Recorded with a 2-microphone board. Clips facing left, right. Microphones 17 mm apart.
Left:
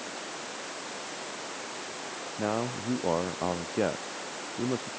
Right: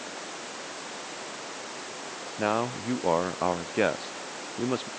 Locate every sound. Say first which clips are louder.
2.4 s a man speaking: right 4 dB; 45° right (ahead or behind); by 4.9 s 50° right (ahead or behind)